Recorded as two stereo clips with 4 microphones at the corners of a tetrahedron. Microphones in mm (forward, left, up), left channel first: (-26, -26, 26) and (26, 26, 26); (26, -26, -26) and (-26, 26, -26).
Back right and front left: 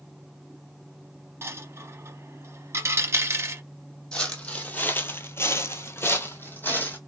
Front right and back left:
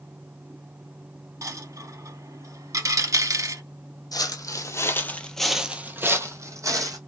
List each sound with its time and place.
1.4 s a dropped coin: 95° left, 0.6 m
4.1 s footsteps: 60° right, 0.8 m; by 7.0 s 165° left, 1.0 m